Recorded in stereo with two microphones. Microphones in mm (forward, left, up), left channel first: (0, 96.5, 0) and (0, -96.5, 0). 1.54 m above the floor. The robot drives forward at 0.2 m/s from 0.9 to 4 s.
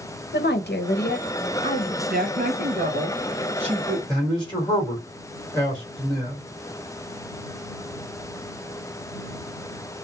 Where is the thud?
I don't hear a thud.